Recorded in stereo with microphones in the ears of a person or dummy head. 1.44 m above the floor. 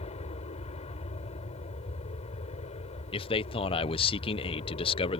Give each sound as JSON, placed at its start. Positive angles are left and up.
{"t": 0.0, "sound": "an aircraft", "side_deg": 30}
{"t": 3.1, "sound": "a man speaking", "side_deg": 30}